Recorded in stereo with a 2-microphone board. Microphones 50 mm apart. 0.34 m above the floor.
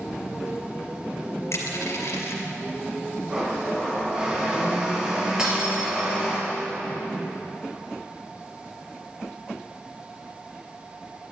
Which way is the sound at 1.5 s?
70° left (ahead or behind).